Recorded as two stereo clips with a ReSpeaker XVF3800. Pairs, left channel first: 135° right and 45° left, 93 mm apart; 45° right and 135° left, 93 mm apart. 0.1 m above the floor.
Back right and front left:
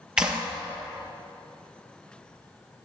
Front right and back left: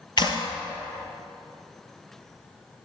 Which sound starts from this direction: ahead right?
A clap, at 0.2 s.